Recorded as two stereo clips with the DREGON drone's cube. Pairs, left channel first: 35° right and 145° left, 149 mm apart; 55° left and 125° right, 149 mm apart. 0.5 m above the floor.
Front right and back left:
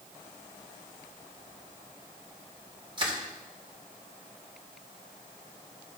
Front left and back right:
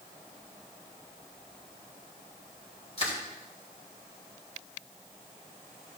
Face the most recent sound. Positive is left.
turn(degrees=95)